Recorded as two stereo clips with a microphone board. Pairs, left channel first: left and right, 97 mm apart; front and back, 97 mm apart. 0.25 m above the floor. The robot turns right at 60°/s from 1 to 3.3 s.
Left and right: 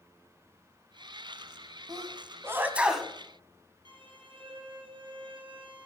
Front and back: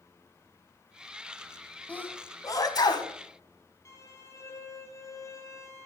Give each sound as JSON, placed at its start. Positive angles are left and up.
{"t": 1.9, "sound": "a sneeze", "azimuth_deg": -70, "distance_m": 2.0}
{"t": 3.9, "sound": "a violin", "azimuth_deg": -60, "distance_m": 2.5}